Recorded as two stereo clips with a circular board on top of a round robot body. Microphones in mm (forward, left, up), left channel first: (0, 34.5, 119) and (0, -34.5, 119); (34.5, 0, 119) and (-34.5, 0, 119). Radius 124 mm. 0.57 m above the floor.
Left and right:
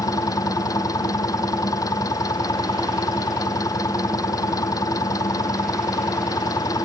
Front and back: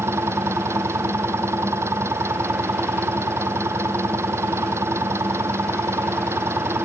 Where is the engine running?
130° left.